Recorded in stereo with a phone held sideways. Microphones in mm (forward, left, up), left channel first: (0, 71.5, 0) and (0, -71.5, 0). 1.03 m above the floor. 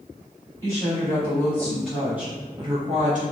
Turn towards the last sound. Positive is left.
turn(degrees=-60)  # may be behind; listen again after turning